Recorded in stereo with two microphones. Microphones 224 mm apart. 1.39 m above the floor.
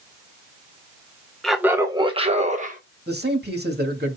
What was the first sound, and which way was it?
Laughter, centre (ahead or behind).